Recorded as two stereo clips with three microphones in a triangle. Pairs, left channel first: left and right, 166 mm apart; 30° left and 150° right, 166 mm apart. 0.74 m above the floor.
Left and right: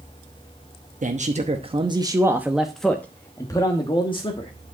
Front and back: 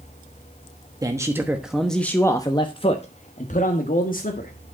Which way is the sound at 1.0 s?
85° right.